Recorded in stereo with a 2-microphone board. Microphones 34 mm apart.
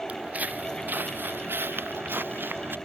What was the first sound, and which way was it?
Footsteps, 40° right (ahead or behind).